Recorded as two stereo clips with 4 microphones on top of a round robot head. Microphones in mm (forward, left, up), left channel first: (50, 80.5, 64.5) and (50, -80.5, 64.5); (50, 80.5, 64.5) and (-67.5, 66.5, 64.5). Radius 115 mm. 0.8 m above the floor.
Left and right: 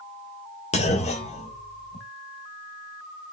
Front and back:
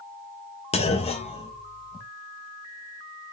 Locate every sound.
0.7 s a clunk: 40° left, 1.0 m